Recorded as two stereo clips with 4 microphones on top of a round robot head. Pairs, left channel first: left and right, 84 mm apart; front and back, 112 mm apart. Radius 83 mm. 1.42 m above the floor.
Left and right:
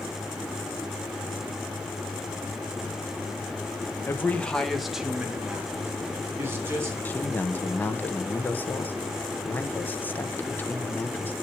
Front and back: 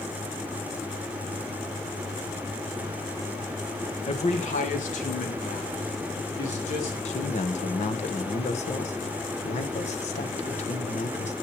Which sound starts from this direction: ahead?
A man speaking, at 7.0 s.